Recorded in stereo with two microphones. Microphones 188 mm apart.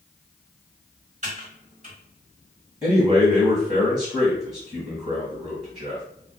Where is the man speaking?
20° right (ahead or behind), 1.3 m.